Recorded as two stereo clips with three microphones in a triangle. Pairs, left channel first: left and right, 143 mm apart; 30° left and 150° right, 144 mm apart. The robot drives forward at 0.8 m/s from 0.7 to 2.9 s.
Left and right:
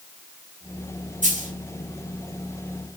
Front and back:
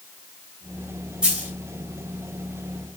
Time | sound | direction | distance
1.2 | a dropped coin | 65° right | 2.5 m